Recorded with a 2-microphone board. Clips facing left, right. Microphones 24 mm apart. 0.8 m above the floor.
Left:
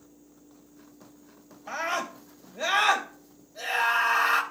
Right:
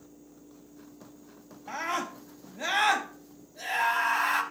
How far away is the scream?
About 3.5 m.